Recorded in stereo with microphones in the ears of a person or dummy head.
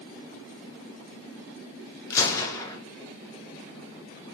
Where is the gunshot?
15° left (ahead or behind), 0.6 m.